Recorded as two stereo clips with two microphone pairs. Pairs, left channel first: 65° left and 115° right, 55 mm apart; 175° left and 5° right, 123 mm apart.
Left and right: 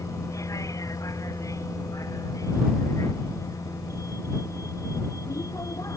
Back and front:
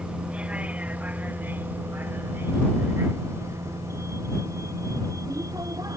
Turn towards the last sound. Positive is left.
turn(degrees=60)